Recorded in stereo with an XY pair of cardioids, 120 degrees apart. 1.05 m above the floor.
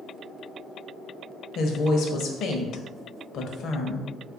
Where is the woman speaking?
65° left, 0.7 m.